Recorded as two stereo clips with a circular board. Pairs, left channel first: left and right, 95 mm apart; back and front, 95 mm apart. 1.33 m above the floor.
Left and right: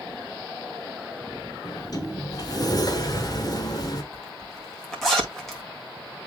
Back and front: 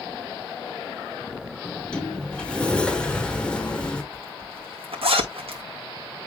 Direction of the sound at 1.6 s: 105° left.